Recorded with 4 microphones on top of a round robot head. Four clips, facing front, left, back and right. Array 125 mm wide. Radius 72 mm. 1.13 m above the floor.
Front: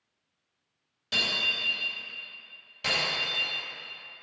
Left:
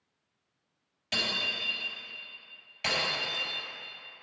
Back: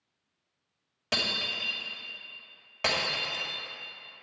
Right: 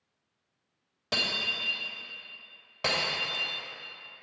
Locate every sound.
1.1 s breaking glass: 135° right, 2.5 m